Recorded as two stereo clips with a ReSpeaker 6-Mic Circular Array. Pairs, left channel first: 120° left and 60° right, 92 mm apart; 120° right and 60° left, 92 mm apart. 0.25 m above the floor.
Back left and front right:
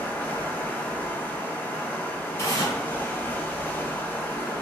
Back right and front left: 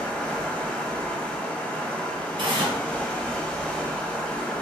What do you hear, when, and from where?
0.0 s running water: 175° left, 1.0 m
2.4 s tearing paper: 65° left, 2.5 m